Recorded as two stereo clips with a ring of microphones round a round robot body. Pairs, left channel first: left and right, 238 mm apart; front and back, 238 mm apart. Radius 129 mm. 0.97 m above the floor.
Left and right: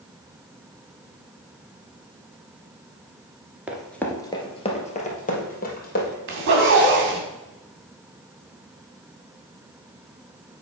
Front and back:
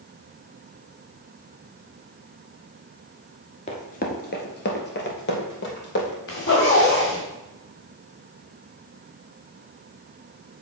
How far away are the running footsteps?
About 1.0 m.